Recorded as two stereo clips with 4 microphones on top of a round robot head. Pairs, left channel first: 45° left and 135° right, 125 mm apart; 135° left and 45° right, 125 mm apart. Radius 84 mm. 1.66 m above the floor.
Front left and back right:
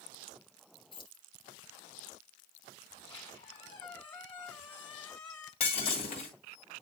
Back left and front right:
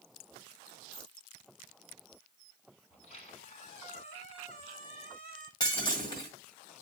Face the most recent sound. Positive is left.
turn(degrees=85)